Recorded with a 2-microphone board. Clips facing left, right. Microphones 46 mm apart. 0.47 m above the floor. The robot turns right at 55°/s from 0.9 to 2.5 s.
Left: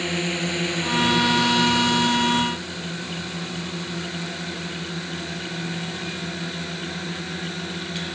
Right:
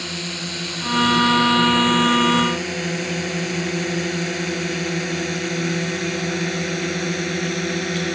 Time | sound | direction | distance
0.0 | a drone | 25° left (ahead or behind) | ?